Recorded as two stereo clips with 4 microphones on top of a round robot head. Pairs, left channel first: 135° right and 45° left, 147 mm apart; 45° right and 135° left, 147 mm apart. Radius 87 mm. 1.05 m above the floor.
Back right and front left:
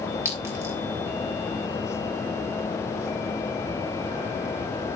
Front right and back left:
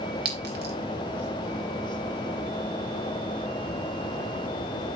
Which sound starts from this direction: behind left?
A clink, at 0.2 s.